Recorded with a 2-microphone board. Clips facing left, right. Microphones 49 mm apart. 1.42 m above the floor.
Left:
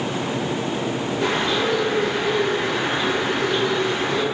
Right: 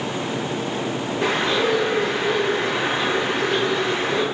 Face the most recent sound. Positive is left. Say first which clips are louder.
# right 2 dB
turn(degrees=-15)  # may be behind; listen again after turning